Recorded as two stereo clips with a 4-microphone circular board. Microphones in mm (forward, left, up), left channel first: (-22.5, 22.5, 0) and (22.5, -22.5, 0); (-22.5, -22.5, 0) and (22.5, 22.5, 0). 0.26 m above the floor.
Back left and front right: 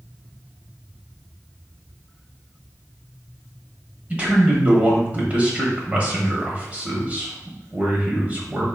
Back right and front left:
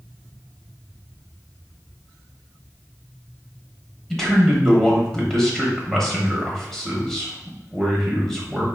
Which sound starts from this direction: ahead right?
A man speaking, at 4.1 s.